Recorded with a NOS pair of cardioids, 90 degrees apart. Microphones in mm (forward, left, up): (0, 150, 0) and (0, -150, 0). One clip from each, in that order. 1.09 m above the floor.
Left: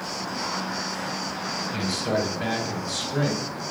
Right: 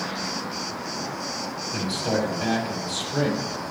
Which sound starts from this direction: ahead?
A man speaking, at 1.7 s.